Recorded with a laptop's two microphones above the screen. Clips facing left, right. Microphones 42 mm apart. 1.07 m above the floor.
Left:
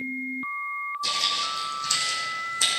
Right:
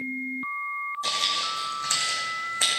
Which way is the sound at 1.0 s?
40° right (ahead or behind).